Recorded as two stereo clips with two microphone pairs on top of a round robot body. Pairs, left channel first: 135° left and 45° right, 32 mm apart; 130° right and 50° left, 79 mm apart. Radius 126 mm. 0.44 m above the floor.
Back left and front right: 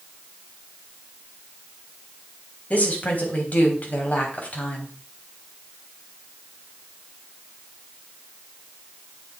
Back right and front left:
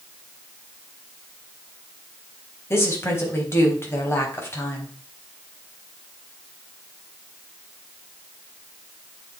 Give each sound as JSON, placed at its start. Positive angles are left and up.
{"t": 2.7, "sound": "a woman speaking", "azimuth_deg": 175, "distance_m": 4.0}